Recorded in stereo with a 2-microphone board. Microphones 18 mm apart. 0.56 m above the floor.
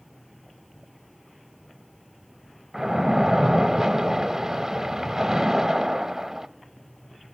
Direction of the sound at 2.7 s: 25° right (ahead or behind).